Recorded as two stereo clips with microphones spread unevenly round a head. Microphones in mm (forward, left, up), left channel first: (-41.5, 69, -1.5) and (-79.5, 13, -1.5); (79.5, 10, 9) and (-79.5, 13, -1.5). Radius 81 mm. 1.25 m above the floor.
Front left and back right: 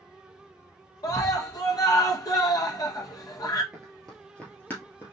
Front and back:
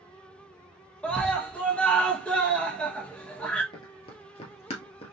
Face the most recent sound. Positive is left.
turn(degrees=25)